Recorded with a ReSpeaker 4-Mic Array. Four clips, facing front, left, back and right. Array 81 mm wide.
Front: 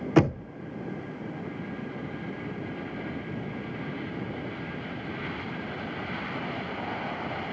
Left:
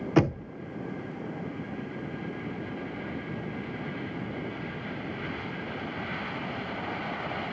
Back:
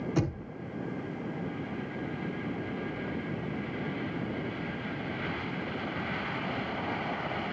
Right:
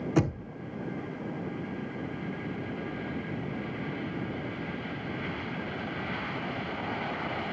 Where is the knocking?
30° left, 0.8 m.